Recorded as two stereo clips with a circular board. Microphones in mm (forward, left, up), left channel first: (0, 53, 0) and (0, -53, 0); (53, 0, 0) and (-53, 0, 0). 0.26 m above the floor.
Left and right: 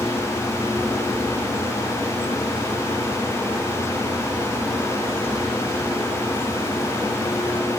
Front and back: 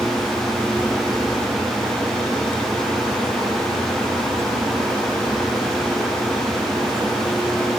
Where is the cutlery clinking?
I don't hear cutlery clinking.